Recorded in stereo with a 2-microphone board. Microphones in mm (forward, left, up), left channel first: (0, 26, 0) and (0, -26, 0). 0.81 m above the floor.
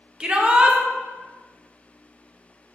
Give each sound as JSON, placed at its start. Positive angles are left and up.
{"t": 0.2, "sound": "a shout", "side_deg": -20, "distance_m": 0.6}